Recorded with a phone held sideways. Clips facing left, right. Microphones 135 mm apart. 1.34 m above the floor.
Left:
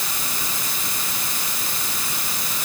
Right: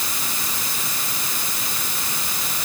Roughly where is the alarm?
I don't hear an alarm.